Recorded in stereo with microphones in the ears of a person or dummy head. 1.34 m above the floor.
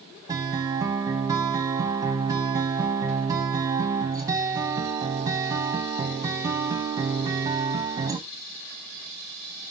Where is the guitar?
15° right (ahead or behind), 1.4 m.